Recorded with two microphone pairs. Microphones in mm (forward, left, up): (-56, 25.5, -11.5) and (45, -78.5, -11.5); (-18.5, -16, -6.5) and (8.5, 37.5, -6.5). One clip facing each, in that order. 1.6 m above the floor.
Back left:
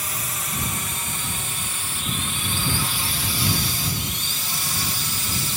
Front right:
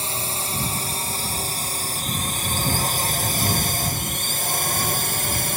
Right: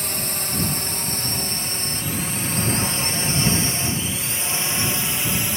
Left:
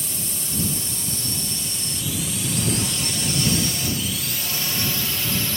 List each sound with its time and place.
0.0 s a drone: 100° right; by 5.6 s 50° right